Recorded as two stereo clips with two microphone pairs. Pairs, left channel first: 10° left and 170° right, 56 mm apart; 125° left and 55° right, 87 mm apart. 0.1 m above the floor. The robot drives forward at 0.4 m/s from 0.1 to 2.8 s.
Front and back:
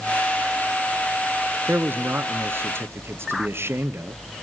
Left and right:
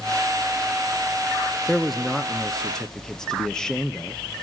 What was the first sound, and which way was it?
A man speaking, 145° right.